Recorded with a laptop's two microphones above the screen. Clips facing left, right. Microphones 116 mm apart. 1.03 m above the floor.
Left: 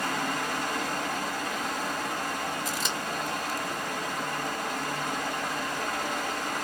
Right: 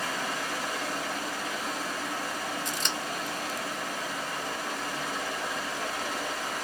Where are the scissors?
5° left (ahead or behind), 0.6 m.